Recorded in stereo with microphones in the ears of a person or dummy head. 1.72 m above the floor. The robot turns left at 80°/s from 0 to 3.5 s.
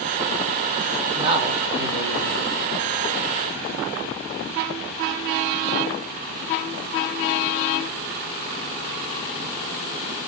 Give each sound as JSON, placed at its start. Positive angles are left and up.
{"t": 1.2, "sound": "a man speaking", "azimuth_deg": -20, "distance_m": 0.8}